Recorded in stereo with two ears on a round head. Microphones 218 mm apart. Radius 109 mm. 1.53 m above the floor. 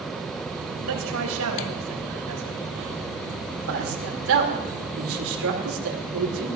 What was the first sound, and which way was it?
A man speaking, 70° right (ahead or behind).